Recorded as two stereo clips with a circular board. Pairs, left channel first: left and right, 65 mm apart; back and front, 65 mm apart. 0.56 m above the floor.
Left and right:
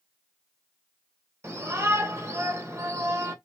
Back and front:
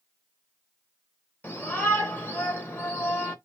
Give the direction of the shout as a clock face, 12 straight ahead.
4 o'clock.